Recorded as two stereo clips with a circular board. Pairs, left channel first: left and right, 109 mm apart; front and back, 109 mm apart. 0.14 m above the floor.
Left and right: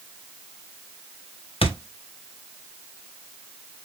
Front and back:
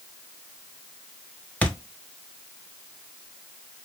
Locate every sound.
1.6 s a thud: 75° left, 0.5 m